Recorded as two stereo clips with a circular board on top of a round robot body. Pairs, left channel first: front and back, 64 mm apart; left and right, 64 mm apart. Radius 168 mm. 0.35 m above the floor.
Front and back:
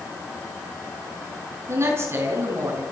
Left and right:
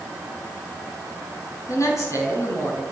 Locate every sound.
1.7 s a man speaking: 130° left, 7 m